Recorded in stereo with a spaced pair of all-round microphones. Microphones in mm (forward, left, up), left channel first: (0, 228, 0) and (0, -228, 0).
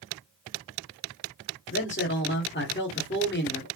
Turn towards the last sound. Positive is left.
turn(degrees=25)  # may be behind; listen again after turning